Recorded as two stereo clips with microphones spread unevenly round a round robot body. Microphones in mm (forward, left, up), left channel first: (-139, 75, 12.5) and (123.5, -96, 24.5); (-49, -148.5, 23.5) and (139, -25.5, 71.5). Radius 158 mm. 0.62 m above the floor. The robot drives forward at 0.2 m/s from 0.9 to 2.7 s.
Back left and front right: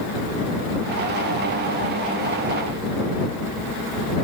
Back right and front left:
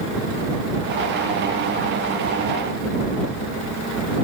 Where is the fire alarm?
I don't hear a fire alarm.